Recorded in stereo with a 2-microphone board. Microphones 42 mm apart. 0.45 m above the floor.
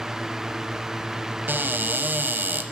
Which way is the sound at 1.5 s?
55° right (ahead or behind).